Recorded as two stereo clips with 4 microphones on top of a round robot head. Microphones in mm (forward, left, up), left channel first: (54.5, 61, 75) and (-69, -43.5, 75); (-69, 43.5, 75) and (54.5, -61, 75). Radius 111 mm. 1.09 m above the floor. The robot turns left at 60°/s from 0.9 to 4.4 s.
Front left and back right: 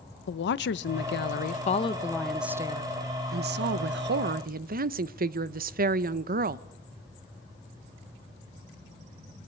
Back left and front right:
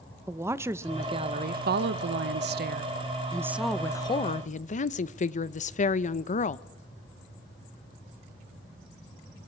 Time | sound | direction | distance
0.3 | a woman speaking | 35° left | 0.7 m